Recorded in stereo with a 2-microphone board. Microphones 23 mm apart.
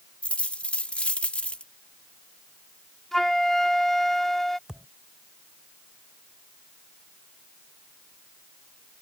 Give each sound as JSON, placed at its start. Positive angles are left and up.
{"t": 0.2, "sound": "a dropped coin", "side_deg": 65}
{"t": 3.1, "sound": "a flute", "side_deg": 15}
{"t": 4.7, "sound": "a thud", "side_deg": -30}